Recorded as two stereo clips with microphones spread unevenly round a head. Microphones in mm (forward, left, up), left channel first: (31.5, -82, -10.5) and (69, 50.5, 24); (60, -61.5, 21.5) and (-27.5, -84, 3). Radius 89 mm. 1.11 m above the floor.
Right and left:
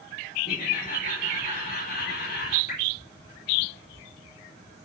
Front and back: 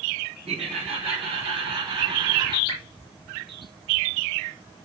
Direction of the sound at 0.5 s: 165° right.